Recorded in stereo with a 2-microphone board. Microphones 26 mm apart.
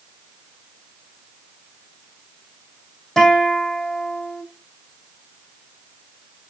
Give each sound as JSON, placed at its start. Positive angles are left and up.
{"t": 3.2, "sound": "a guitar", "side_deg": 15, "distance_m": 4.5}